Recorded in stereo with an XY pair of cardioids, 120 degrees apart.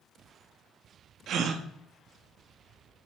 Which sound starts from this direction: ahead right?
A gasp, at 1.3 s.